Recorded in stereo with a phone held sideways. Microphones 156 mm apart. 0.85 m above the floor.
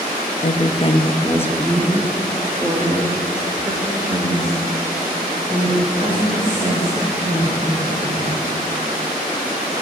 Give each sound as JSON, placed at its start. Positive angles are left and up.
{"t": 0.4, "sound": "a woman speaking", "side_deg": 50, "distance_m": 0.7}